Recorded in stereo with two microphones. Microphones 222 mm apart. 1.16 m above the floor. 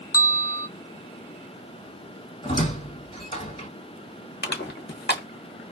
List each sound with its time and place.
0.1 s a bell: 15° left (ahead or behind), 0.6 m
2.4 s a squeak: 25° left (ahead or behind), 1.9 m
4.4 s crushing: 50° left (ahead or behind), 0.7 m